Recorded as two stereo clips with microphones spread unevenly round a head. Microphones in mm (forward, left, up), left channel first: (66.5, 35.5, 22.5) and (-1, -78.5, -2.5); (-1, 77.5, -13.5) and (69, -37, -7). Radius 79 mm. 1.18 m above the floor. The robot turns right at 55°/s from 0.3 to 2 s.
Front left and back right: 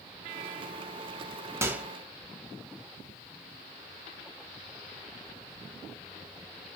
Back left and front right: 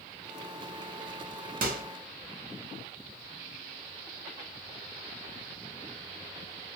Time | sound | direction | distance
1.6 | a microwave | 50° right | 0.7 m